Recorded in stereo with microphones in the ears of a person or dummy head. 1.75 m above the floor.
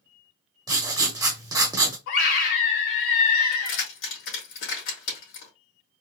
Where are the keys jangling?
70° left (ahead or behind), 2.5 m.